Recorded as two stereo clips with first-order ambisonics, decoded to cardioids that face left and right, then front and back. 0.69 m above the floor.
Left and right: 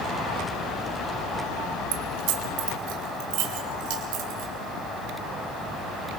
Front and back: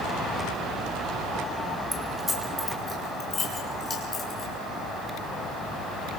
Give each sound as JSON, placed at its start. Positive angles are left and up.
{"t": 1.9, "sound": "keys jangling", "azimuth_deg": -95, "distance_m": 3.0}